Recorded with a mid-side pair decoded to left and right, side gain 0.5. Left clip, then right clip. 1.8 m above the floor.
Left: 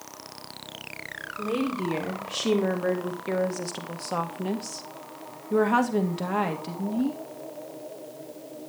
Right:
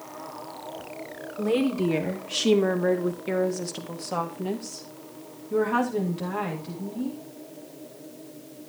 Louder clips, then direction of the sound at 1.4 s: Right 4 dB; 30° right.